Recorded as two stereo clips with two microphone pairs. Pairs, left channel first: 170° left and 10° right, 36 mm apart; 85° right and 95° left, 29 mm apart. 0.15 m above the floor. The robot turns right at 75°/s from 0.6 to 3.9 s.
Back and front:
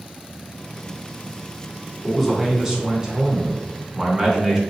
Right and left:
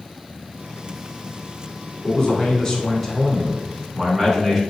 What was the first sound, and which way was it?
A man speaking, 100° right.